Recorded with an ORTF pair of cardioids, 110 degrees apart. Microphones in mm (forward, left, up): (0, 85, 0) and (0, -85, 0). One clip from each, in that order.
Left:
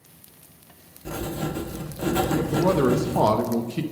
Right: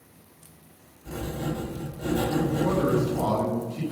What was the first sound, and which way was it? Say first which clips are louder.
Writing: left 2 dB; 70° left.